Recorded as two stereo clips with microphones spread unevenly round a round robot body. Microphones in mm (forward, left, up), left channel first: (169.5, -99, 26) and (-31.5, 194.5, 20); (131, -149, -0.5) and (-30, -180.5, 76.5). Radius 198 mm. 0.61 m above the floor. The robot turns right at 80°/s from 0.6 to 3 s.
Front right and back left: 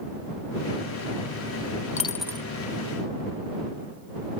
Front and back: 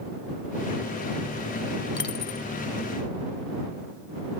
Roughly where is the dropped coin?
Ahead.